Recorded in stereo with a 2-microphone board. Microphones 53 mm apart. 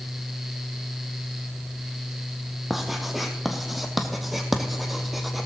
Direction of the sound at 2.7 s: 5° right (ahead or behind).